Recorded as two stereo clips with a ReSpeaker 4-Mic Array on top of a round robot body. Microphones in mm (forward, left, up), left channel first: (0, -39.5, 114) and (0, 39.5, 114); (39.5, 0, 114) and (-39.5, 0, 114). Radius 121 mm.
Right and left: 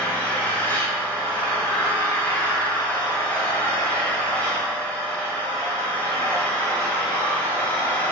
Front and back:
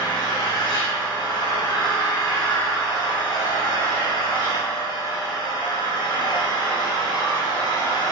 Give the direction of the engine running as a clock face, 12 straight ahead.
1 o'clock.